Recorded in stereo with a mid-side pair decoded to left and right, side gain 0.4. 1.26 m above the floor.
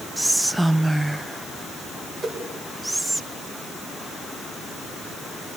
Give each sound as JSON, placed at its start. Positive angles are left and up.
{"t": 0.2, "sound": "whispering", "azimuth_deg": -10, "distance_m": 0.6}
{"t": 2.2, "sound": "a whoosh", "azimuth_deg": -30, "distance_m": 6.0}